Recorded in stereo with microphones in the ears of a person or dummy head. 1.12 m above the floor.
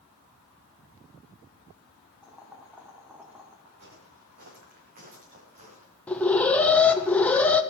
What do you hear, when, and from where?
2.2 s boiling: centre (ahead or behind), 2.5 m
3.6 s footsteps: 60° right (ahead or behind), 6 m; by 5.9 s 30° right (ahead or behind), 5 m
6.1 s an alarm: 10° left (ahead or behind), 1.0 m